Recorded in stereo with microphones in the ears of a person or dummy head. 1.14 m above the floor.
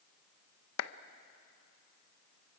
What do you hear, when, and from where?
0.8 s a clap: 85° left, 0.7 m